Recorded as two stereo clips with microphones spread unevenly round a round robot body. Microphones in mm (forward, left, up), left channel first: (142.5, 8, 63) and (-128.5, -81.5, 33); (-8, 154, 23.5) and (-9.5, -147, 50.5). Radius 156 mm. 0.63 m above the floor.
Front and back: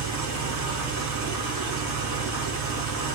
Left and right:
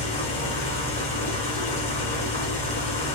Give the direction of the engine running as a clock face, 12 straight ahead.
7 o'clock.